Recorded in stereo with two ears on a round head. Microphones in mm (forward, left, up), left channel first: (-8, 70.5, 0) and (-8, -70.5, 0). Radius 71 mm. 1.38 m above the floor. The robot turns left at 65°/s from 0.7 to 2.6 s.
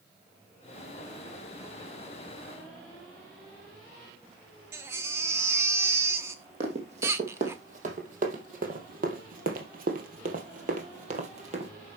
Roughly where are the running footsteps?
Right.